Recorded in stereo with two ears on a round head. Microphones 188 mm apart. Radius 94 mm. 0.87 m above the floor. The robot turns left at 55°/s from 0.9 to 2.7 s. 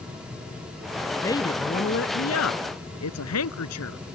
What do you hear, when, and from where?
1.2 s a woman speaking: 170° left; by 4.0 s 85° left